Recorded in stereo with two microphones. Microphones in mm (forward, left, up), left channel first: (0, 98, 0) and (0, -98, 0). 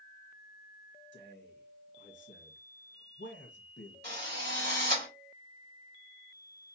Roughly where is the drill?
Right.